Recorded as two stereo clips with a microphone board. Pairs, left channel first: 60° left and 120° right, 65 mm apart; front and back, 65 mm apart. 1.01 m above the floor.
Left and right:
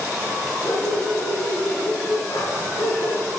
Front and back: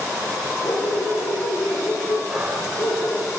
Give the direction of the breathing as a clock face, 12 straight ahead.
9 o'clock.